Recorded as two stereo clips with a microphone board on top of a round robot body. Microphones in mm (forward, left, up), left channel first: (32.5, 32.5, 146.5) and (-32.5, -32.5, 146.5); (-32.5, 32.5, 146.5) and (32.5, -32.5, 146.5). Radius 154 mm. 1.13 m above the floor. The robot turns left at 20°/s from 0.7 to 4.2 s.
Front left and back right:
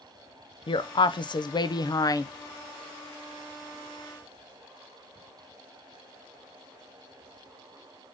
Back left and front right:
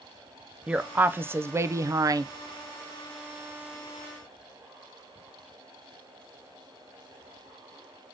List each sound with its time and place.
0.7 s a woman speaking: 30° left, 0.6 m; by 2.2 s straight ahead, 0.6 m